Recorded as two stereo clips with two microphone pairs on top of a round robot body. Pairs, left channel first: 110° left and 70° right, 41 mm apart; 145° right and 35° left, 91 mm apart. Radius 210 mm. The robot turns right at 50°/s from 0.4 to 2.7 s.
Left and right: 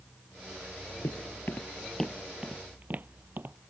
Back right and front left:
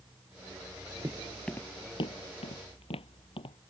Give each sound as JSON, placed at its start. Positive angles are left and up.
{"t": 1.0, "sound": "footsteps", "azimuth_deg": 100}